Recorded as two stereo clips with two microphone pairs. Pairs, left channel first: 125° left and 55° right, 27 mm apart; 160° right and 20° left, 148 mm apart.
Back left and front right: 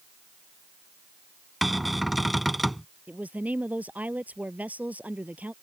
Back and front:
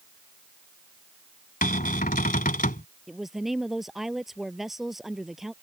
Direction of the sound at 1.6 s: 140° right.